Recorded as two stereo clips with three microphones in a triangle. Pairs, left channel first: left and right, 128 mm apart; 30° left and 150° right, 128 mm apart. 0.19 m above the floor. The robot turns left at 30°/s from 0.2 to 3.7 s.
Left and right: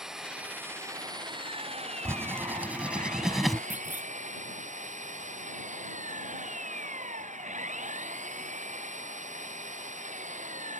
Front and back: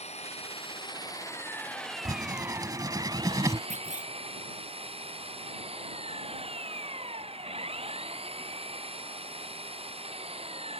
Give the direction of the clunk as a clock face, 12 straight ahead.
6 o'clock.